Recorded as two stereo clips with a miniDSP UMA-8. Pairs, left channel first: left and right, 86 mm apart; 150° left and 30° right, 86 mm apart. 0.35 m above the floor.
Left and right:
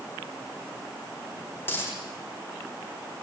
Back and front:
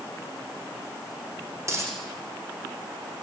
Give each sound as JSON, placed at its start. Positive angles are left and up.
{"t": 1.6, "sound": "a dropped coin", "azimuth_deg": 25, "distance_m": 7.0}